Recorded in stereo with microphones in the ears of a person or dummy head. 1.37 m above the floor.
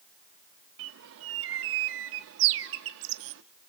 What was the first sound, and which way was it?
A bird, 70° right (ahead or behind).